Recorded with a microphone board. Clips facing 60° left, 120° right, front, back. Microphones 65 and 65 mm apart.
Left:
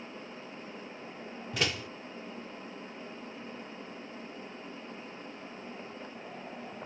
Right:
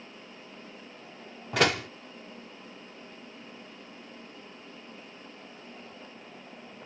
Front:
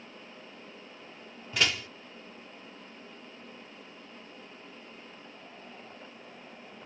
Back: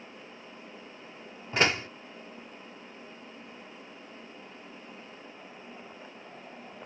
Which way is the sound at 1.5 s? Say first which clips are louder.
Right 8 dB, back 4 dB; 125° right.